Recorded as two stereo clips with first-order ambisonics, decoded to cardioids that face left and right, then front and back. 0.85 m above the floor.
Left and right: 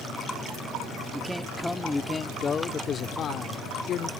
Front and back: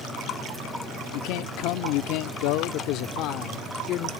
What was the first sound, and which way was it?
A man speaking, 5° right.